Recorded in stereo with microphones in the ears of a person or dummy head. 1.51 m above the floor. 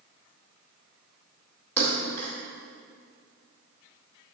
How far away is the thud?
About 2 m.